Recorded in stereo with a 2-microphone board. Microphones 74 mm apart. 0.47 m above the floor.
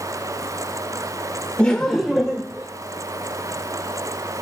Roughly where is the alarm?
I don't hear an alarm.